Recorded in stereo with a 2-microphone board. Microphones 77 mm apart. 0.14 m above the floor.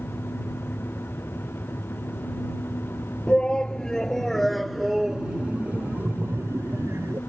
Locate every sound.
3.3 s a shout: 10° left (ahead or behind); by 7.2 s 35° right (ahead or behind)